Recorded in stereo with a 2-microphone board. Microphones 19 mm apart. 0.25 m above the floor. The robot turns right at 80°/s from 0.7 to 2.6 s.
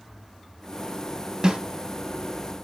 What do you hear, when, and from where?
1.4 s a snare drum: 45° right (ahead or behind), 0.6 m; by 1.6 s 50° right (ahead or behind), 0.6 m